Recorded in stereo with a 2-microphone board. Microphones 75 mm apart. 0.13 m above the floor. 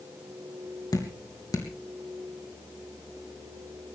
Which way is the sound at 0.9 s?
60° left (ahead or behind).